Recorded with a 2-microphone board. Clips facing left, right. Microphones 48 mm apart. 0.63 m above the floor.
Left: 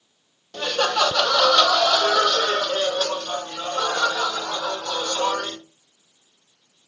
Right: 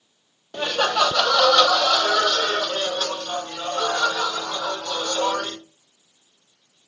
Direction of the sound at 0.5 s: 20° right (ahead or behind).